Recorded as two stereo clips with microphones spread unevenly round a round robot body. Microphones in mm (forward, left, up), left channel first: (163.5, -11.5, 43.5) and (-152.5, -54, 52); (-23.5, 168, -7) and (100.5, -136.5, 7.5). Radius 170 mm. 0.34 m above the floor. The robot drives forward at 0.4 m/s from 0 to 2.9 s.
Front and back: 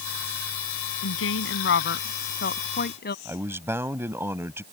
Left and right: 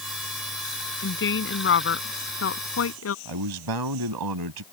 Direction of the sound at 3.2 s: 90° right.